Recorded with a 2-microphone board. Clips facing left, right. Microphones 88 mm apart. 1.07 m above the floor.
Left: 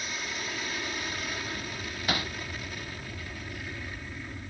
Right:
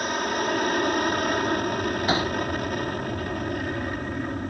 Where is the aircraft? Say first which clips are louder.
Right 12 dB; 55° right (ahead or behind).